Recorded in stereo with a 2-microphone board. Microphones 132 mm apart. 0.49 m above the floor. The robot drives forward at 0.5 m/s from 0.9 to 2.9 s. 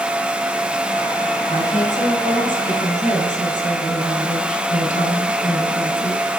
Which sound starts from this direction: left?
A woman speaking, at 1.5 s.